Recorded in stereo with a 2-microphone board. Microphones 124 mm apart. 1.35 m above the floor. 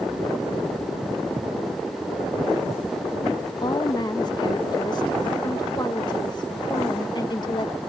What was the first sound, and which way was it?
A woman speaking, 35° left (ahead or behind).